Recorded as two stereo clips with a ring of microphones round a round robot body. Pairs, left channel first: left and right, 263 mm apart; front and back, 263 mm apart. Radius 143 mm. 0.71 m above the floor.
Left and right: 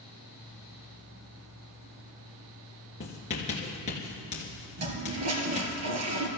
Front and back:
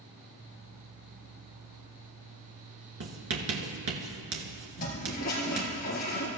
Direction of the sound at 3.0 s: 160° left.